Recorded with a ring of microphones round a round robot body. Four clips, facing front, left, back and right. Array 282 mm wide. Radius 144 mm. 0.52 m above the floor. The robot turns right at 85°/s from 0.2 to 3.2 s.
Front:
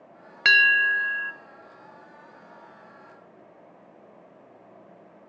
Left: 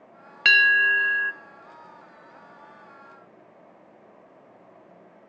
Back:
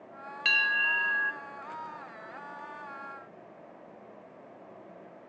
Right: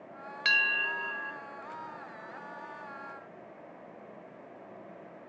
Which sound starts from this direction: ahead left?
A bell, at 0.5 s.